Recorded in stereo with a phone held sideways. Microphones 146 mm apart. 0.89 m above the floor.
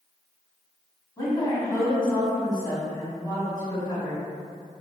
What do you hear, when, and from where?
1.2 s a woman speaking: 25° left (ahead or behind), 1.5 m